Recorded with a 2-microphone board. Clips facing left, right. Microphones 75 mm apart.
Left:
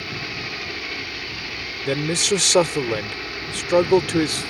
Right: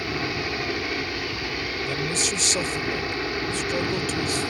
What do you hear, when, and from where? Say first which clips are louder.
0.0 s a helicopter: right 4 dB; 20° right (ahead or behind)
1.9 s a man speaking: left 9 dB; 85° left